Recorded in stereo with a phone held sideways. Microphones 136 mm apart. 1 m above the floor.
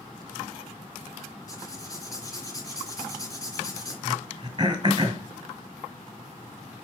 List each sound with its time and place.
1.5 s writing: 25° left (ahead or behind), 3 m
4.0 s throat clearing: 30° right (ahead or behind), 1.9 m